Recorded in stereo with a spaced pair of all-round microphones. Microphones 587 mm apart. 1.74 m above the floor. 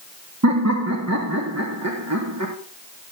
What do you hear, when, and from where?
0.4 s laughter: 25° right (ahead or behind), 1.2 m